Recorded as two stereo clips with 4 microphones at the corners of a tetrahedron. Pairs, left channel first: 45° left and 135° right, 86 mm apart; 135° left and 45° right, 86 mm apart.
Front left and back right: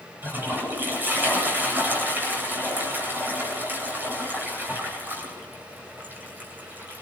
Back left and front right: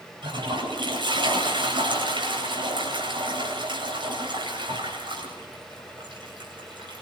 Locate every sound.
0.2 s a toilet flushing: 65° right, 9.5 m